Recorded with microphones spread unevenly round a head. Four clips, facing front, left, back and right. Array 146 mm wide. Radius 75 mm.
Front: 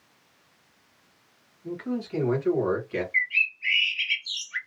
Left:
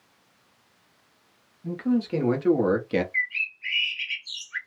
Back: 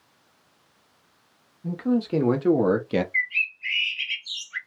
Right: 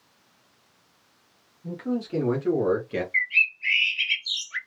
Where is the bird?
95° right, 1.4 m.